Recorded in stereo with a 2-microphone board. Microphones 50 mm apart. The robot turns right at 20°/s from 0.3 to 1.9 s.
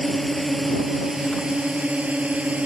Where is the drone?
175° left; by 2.7 s 155° right.